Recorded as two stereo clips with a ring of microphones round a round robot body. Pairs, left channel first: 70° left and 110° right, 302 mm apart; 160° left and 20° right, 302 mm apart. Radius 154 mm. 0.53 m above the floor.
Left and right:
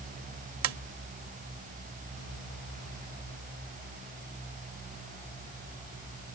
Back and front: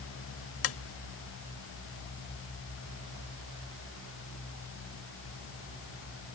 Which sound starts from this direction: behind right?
Tapping, at 0.6 s.